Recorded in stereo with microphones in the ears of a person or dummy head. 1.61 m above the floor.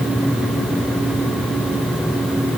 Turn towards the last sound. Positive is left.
No sound to turn to.